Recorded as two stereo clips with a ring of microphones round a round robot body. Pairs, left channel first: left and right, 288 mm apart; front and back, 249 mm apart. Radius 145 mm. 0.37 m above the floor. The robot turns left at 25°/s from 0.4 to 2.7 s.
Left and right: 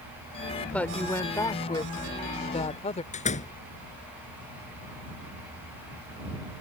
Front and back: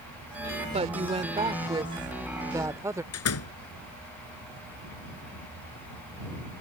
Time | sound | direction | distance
0.6 | a woman speaking | 170° left | ?
3.1 | a door slam | 25° left | ?